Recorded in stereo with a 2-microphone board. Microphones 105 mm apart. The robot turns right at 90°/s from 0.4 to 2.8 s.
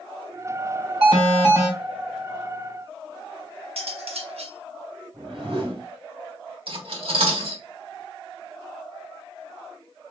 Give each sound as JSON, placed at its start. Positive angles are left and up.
{"t": 1.0, "sound": "an alarm", "azimuth_deg": -90, "distance_m": 2.5}
{"t": 3.8, "sound": "cutlery clinking", "side_deg": -70, "distance_m": 0.8}
{"t": 5.1, "sound": "a whoosh", "side_deg": -60, "distance_m": 1.5}
{"t": 6.7, "sound": "cutlery clinking", "side_deg": -60, "distance_m": 1.2}